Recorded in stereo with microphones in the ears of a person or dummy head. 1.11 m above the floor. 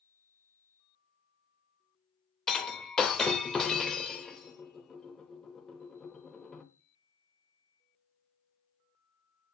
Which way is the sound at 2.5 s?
5° left (ahead or behind).